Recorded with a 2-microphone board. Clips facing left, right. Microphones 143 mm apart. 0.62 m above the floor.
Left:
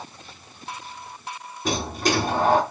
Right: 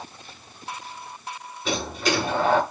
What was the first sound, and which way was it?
A sliding door, 40° left (ahead or behind).